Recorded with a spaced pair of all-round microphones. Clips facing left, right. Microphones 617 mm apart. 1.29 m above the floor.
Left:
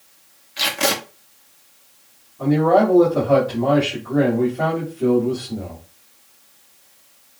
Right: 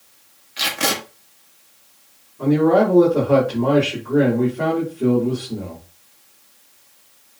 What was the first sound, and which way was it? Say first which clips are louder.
Tape being pulled: left 2 dB; 5° right (ahead or behind).